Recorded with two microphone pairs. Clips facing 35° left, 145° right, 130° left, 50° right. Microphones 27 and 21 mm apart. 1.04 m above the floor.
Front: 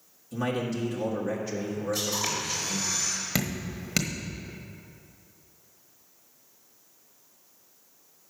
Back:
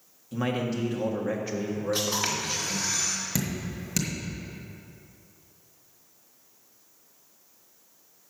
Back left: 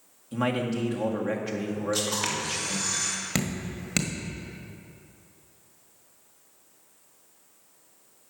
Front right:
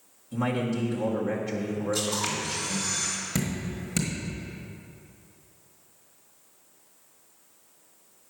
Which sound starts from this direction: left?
Dripping, at 3.4 s.